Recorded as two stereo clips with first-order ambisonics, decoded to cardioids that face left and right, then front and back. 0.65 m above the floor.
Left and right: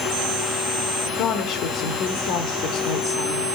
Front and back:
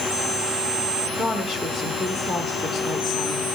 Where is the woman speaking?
95° left, 0.9 m.